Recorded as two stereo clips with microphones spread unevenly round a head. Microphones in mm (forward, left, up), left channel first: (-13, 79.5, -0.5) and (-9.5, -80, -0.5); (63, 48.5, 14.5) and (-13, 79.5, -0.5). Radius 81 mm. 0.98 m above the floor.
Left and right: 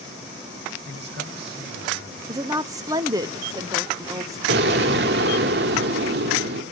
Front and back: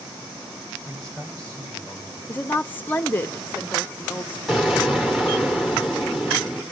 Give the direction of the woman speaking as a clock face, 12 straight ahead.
3 o'clock.